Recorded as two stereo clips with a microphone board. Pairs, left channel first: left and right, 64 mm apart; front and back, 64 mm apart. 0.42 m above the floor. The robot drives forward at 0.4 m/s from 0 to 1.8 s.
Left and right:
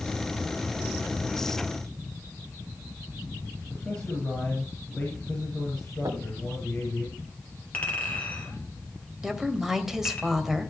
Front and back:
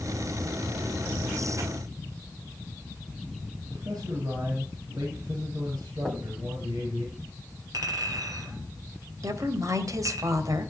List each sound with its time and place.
3.7 s a man speaking: 160° left, 7 m
6.0 s knocking: 90° right, 1.9 m
7.7 s a clink: 155° left, 5.5 m
9.2 s a woman speaking: 175° right, 2 m